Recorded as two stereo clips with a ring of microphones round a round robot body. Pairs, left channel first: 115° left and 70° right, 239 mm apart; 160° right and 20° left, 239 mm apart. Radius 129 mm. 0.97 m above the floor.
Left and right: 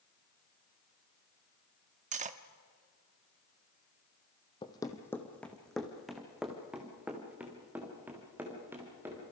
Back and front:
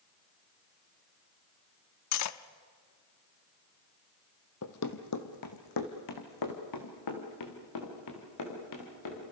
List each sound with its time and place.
2.1 s cutlery clinking: 130° right, 0.9 m
4.6 s running footsteps: straight behind, 1.5 m; by 9.2 s 150° right, 6.5 m